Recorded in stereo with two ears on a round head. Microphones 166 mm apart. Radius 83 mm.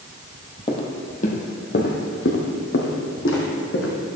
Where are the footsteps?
30° left (ahead or behind), 1.2 m; by 3.9 s 75° left (ahead or behind), 2.5 m.